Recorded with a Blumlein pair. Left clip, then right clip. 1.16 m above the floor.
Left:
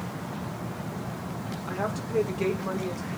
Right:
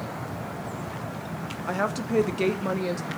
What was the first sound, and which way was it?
A woman speaking, 65° right.